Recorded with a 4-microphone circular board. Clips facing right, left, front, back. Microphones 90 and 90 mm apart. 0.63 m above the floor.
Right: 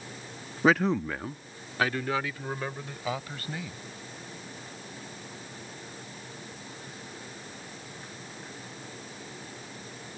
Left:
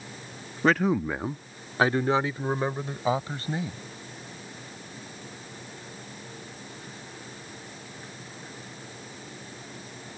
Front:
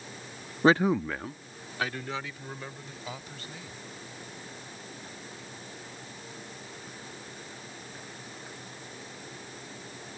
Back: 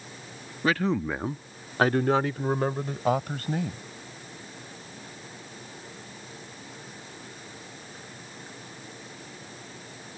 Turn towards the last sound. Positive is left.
turn(degrees=150)